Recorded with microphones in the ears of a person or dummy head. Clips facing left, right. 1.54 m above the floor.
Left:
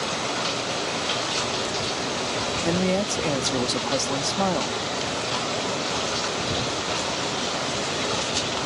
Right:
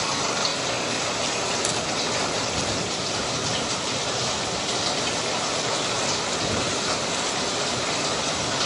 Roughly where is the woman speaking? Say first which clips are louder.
Left 6 dB; left.